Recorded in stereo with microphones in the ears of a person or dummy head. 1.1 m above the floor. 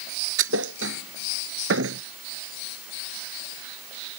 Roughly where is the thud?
Right.